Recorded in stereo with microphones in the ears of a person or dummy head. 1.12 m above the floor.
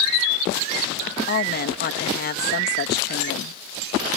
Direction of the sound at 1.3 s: 50° left (ahead or behind).